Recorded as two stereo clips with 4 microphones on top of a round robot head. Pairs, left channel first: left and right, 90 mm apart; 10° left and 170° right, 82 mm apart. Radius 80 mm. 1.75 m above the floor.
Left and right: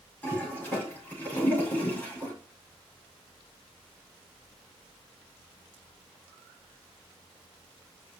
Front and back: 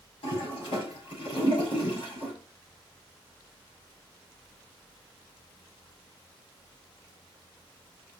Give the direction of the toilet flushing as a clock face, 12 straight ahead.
11 o'clock.